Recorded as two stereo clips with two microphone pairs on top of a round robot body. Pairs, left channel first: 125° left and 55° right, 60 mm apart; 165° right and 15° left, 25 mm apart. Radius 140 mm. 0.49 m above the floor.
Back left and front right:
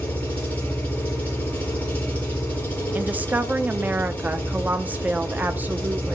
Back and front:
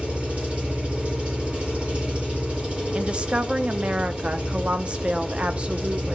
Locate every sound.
0.0 s an engine running: 65° left, 6.5 m
3.0 s a woman speaking: 5° left, 1.0 m